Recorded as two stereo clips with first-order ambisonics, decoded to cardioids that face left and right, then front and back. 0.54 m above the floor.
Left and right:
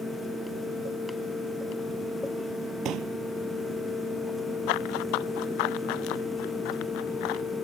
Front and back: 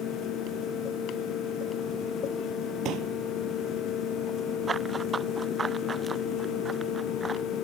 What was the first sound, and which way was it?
A pop, 135° right.